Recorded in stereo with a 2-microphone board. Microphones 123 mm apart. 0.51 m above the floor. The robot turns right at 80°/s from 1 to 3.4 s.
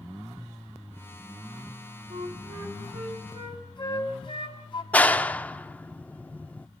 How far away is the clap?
About 0.6 m.